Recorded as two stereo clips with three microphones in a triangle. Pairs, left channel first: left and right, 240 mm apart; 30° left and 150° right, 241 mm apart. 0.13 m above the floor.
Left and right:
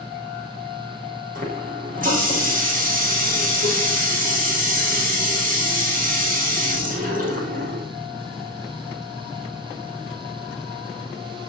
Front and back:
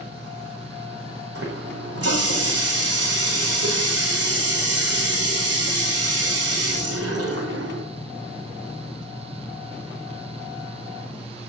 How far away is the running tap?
About 5 m.